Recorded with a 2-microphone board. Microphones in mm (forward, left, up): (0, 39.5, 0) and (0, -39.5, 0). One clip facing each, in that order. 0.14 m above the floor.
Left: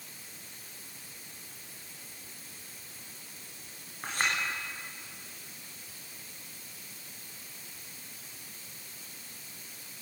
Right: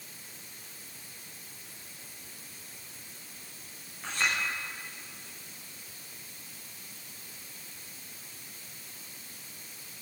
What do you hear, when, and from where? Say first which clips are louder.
4.0 s a clink: even; 45° left (ahead or behind), 8 m